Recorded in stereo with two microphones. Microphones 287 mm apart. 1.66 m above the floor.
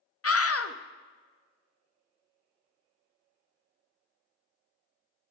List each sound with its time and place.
0.2 s a scream: 55° left (ahead or behind), 0.6 m